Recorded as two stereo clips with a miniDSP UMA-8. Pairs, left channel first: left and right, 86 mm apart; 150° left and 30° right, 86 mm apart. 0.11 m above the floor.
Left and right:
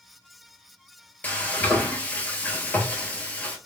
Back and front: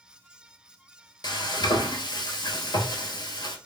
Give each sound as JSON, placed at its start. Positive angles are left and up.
{"t": 1.2, "sound": "frying", "azimuth_deg": 160, "distance_m": 0.9}